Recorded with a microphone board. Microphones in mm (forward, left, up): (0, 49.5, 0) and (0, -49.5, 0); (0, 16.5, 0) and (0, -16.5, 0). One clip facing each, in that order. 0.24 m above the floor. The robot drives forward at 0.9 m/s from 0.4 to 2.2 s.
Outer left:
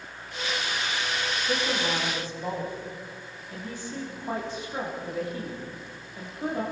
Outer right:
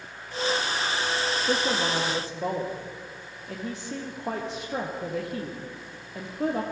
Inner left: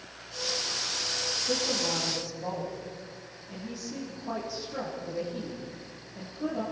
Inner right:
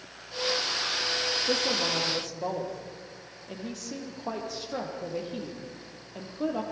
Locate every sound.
1.5 s a woman speaking: 80° right, 6 m; by 6.6 s 75° right (ahead or behind), 6 m